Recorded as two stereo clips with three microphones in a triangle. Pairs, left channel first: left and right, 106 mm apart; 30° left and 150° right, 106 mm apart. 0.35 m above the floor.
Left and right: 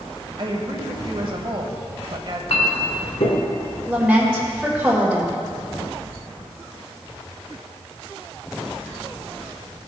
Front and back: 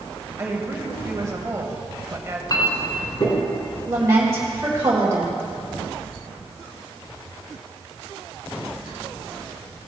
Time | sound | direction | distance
0.4 | a woman speaking | 95° right | 1.4 m
2.5 | a clink | 80° left | 1.9 m
3.9 | a woman speaking | 150° right | 1.4 m